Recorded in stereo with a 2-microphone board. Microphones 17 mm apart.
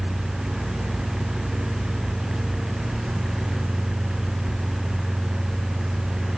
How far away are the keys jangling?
No keys jangling in this recording.